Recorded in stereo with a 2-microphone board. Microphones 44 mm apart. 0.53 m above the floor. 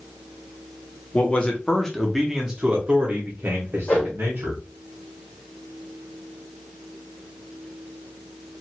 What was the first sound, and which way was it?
A man speaking, 35° left (ahead or behind).